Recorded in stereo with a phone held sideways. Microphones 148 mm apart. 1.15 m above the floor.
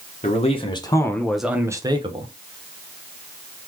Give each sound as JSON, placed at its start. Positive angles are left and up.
{"t": 0.2, "sound": "a man speaking", "side_deg": 45, "distance_m": 1.3}